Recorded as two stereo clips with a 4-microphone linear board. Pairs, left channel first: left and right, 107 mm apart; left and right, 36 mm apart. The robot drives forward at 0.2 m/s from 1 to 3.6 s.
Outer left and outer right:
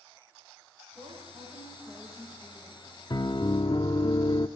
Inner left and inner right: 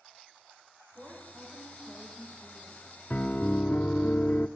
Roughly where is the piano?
Left.